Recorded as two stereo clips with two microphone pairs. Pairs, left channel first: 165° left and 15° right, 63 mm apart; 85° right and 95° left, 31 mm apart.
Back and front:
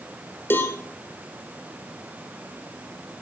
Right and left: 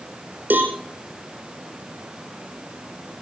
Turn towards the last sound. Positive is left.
turn(degrees=110)